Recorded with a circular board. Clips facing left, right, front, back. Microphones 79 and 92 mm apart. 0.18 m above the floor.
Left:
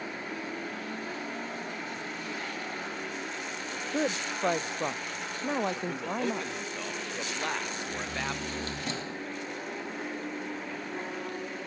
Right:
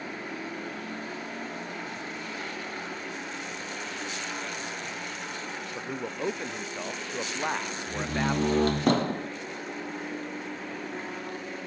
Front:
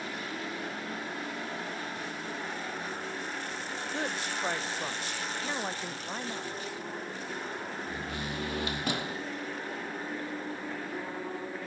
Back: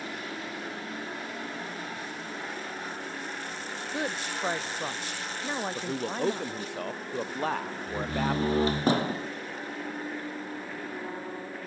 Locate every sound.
3.9 s a woman speaking: 100° left
5.8 s a man speaking: 165° right
7.9 s a door slam: 125° right